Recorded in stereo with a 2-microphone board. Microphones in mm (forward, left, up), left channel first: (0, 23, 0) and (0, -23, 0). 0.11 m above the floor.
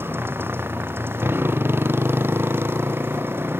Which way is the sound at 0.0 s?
60° right (ahead or behind).